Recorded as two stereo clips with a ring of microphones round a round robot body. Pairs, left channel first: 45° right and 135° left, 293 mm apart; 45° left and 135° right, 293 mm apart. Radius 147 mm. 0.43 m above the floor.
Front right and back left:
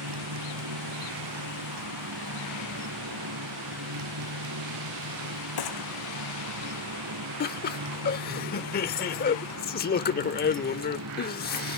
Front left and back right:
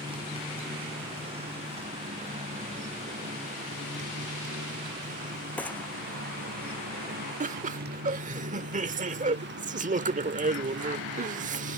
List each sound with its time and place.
0.0 s a motorcycle: 150° left; by 11.8 s 175° left
5.6 s a gunshot: 40° right
7.4 s laughter: 85° right